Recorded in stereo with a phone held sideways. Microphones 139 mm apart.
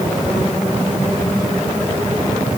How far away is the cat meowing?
I don't hear a cat meowing.